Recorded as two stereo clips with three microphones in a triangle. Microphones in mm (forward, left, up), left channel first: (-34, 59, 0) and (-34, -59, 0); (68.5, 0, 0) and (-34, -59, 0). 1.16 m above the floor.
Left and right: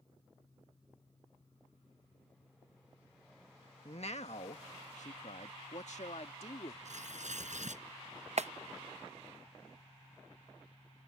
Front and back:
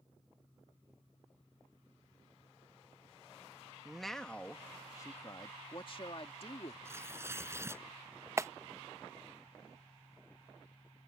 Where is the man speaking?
125° left; by 6.8 s 60° left.